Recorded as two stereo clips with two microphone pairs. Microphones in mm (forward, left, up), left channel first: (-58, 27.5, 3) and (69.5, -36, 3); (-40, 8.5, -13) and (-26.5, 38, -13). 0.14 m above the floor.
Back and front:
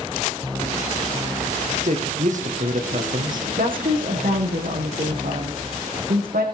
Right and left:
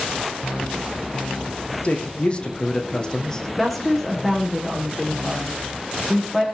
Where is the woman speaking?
30° right, 8 m.